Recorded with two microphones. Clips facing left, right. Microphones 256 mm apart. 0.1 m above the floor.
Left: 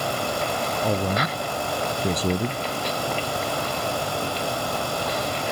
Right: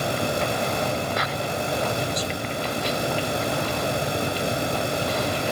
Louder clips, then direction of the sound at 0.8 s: Left 3 dB; 65° left (ahead or behind).